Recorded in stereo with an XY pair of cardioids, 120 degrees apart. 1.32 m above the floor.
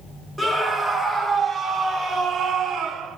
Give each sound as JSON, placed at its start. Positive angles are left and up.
{"t": 0.4, "sound": "a scream", "azimuth_deg": 0, "distance_m": 3.0}